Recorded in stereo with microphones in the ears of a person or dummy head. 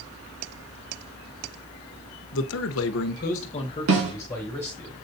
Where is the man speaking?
60° left (ahead or behind), 1.2 m; by 4.9 s 10° left (ahead or behind), 3 m.